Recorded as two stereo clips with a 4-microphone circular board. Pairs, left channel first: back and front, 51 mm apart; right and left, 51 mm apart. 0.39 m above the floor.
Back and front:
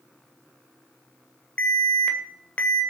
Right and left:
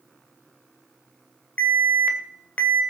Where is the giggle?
No giggle in this recording.